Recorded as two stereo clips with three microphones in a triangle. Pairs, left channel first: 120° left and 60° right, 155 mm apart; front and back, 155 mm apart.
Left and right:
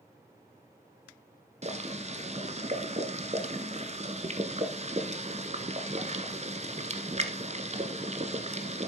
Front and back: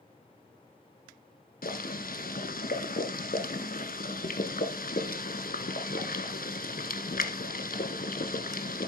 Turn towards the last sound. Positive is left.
turn(degrees=-20)